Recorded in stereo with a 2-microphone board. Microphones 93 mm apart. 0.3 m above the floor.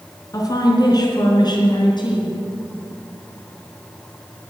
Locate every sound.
0.3 s a woman speaking: 40° left (ahead or behind), 4 m; by 2.4 s 55° left (ahead or behind), 4.5 m